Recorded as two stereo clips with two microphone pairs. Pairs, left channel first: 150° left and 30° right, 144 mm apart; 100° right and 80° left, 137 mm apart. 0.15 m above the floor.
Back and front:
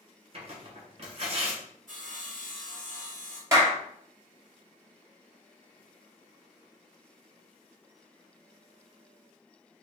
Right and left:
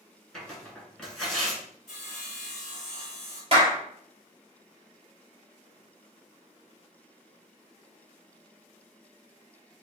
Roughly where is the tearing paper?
Ahead.